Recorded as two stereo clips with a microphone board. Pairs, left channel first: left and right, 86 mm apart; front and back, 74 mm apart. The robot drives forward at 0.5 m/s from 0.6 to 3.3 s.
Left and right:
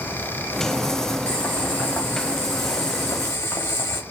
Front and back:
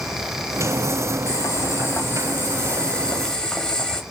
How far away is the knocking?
I don't hear knocking.